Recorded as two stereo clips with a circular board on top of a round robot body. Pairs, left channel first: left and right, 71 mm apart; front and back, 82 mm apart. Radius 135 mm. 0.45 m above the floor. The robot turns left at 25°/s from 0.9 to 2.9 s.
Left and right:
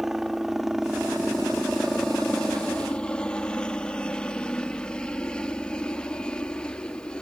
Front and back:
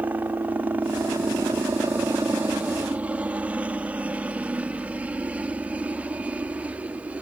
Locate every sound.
0.0 s a helicopter: 170° right; by 7.2 s 140° left